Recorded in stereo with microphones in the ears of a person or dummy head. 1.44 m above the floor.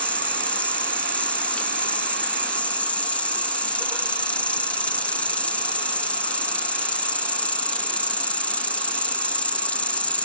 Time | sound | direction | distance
0.0 | an insect | 10° left (ahead or behind) | ?